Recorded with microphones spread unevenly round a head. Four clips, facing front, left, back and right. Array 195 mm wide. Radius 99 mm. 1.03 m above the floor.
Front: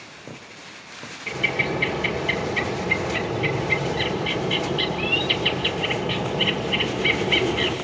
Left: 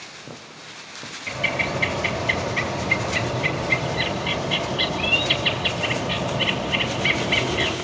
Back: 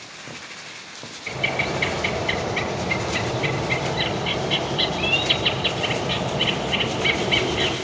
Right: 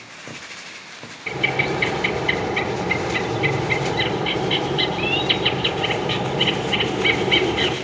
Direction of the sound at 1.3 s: 65° right.